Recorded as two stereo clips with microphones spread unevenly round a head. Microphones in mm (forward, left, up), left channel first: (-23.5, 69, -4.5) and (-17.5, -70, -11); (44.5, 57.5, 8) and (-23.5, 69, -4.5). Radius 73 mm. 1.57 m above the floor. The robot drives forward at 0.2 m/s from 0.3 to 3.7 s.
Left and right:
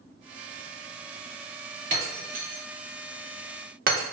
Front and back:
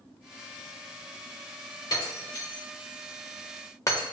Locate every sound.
1.9 s breaking glass: 50° right, 1.5 m; by 4.0 s 65° right, 1.4 m